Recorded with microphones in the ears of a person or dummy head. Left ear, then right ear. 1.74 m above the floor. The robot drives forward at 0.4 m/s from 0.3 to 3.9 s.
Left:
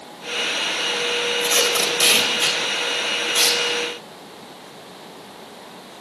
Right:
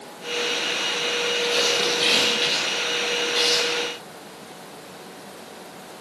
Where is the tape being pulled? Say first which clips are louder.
Left 2 dB; 40° left (ahead or behind), 4.5 m; by 3.6 s 35° left (ahead or behind), 5 m.